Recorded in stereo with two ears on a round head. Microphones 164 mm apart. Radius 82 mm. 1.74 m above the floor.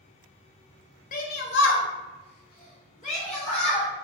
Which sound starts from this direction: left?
A shout, at 1.1 s.